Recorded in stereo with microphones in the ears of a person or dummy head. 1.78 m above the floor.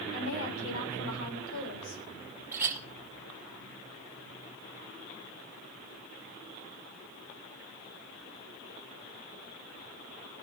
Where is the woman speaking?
75° left (ahead or behind), 7.5 m; by 2.0 s 90° left, 8 m.